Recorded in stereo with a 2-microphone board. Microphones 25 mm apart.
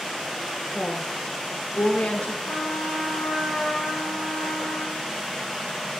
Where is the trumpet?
35° left (ahead or behind), 7 m.